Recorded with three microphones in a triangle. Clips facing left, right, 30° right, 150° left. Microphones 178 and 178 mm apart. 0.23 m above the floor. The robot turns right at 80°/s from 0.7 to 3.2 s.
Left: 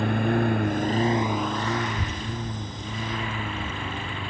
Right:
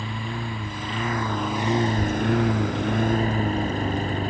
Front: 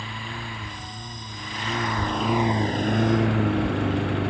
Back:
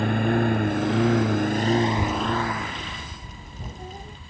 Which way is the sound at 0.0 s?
120° left.